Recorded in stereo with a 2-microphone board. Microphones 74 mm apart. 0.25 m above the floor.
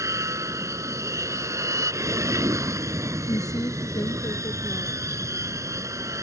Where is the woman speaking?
55° left (ahead or behind).